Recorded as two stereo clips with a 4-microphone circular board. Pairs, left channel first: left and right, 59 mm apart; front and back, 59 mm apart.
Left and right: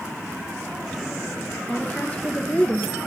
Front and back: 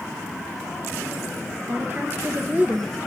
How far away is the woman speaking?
About 2 m.